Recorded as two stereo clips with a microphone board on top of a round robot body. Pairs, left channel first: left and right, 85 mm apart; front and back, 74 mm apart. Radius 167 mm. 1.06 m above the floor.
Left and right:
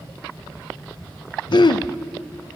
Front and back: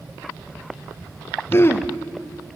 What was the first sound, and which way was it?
Throat clearing, 60° left.